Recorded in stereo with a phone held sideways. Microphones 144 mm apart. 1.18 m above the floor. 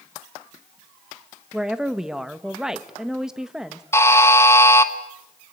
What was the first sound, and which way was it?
A woman speaking, 5° right (ahead or behind).